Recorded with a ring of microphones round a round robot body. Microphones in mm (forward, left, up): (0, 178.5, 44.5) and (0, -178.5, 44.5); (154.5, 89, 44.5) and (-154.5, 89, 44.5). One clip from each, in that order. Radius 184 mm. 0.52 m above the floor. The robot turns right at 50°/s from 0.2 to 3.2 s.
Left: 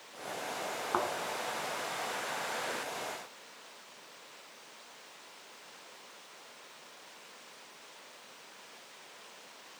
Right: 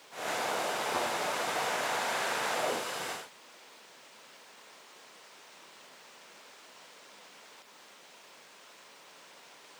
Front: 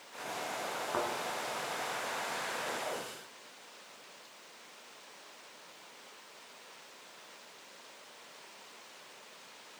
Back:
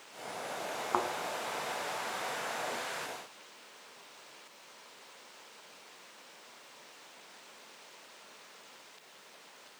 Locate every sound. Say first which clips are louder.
0.9 s a thud: left 3 dB, back 3 dB; 155° left, 1.7 m; by 1.1 s 165° left, 1.7 m